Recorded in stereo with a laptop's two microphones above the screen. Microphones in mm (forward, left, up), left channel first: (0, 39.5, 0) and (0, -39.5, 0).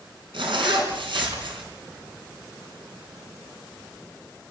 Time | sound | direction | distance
0.3 | a zipper | 85° right | 4.5 m